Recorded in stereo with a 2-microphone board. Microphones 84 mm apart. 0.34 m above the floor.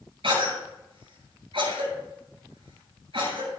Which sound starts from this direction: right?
A cough, at 0.2 s.